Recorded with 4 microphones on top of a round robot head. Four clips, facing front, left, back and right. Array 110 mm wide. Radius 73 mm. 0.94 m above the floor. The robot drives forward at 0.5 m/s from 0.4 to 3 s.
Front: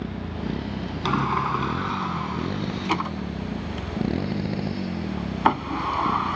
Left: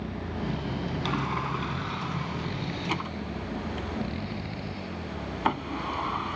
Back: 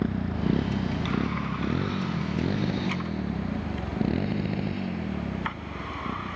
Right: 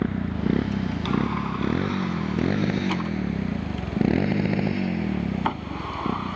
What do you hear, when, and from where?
0.0 s a motorcycle: 110° right; by 6.3 s 70° right
1.1 s a sliding door: straight ahead